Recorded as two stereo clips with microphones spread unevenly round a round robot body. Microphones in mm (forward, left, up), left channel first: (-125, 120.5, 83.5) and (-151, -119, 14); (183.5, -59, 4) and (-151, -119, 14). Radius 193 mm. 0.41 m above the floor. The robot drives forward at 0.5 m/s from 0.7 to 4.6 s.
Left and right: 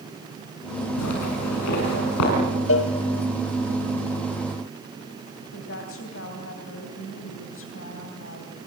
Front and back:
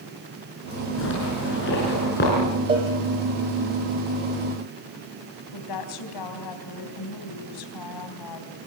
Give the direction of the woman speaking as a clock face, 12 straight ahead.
11 o'clock.